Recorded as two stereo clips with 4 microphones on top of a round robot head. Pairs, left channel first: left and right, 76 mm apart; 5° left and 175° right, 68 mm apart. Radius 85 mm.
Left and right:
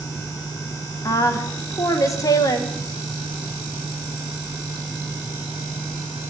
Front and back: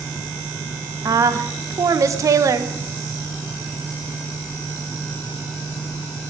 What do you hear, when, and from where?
1.1 s a woman speaking: 140° left, 1.5 m